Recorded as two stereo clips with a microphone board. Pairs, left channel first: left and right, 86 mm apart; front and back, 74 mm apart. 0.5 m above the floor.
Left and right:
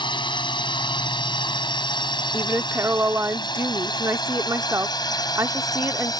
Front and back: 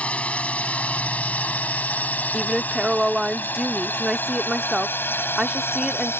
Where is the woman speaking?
100° right.